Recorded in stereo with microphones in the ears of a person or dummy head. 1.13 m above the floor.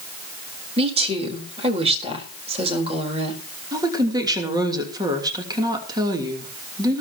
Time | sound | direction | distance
0.8 | a woman speaking | 30° right (ahead or behind) | 4 m
3.7 | a woman speaking | 20° right (ahead or behind) | 3 m